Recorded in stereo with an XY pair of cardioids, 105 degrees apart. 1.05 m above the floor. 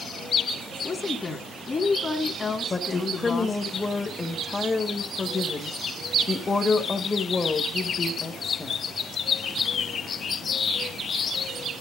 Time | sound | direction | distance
0.8 | a woman speaking | 35° left | 1.9 m
2.7 | a woman speaking | 30° left | 1.4 m